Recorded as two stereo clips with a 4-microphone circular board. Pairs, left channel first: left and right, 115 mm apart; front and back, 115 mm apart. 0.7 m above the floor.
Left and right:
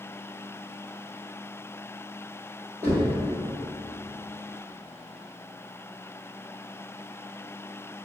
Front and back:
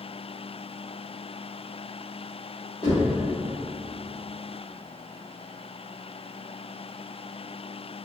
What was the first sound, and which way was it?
Knocking, 20° right.